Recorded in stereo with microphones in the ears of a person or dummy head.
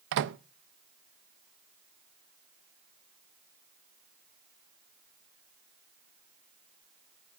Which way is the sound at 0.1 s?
60° right (ahead or behind).